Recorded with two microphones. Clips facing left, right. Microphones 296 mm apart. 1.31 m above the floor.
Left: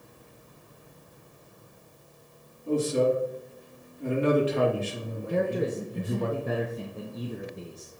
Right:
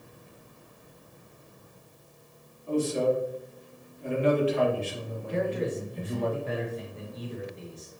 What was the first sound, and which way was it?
A man speaking, 85° left.